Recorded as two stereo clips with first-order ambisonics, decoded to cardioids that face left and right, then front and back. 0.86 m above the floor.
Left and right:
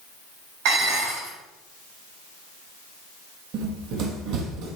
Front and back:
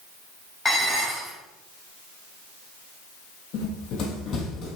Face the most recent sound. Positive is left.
turn(degrees=-65)